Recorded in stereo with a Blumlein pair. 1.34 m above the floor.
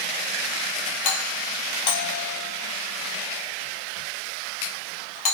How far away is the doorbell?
About 4.5 m.